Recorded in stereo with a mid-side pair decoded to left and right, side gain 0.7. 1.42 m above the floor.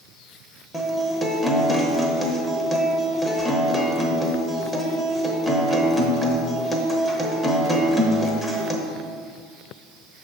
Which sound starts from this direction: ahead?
A guitar, at 0.7 s.